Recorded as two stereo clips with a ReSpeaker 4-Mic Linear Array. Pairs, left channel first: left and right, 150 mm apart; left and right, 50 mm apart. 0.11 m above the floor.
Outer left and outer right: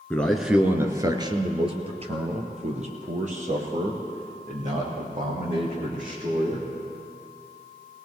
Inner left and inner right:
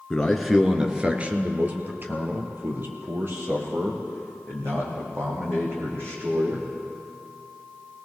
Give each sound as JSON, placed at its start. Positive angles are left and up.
{"t": 0.1, "sound": "a man speaking", "side_deg": 10, "distance_m": 1.3}